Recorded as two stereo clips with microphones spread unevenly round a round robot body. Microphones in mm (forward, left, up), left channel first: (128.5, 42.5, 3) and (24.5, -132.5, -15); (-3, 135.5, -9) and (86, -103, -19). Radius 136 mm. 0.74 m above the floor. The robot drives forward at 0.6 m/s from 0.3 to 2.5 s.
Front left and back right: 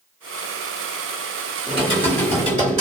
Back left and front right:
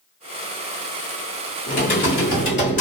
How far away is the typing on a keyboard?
About 1.7 m.